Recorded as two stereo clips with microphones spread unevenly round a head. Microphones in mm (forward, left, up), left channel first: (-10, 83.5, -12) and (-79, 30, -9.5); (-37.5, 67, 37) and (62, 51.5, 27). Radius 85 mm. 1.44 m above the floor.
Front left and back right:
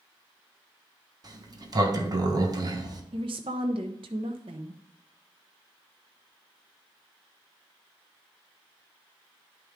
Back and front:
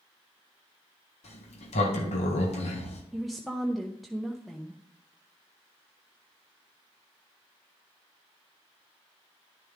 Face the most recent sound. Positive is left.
turn(degrees=-100)